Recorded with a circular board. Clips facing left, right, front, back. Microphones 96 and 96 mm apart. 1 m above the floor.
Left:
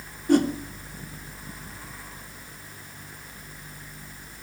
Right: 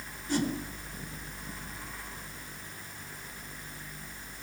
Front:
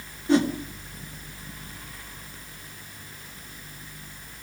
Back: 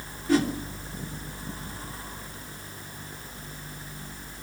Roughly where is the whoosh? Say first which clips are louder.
Left 10 dB, front 2 dB; ahead left.